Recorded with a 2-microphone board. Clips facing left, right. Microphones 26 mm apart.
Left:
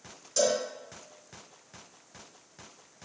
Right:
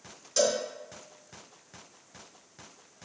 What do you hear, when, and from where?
0.4 s a cowbell: 20° right (ahead or behind), 3 m